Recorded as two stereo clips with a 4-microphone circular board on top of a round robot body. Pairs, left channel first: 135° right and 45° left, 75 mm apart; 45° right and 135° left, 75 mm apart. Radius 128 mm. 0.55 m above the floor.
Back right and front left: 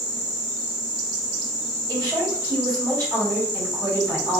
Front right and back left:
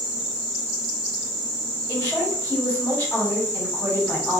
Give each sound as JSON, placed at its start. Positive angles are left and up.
{"t": 1.9, "sound": "a woman speaking", "azimuth_deg": 20, "distance_m": 1.6}